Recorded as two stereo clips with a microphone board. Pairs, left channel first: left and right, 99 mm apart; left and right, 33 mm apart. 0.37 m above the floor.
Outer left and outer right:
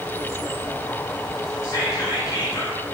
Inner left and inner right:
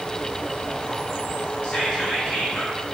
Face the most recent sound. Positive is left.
turn(degrees=30)  # may be behind; listen again after turning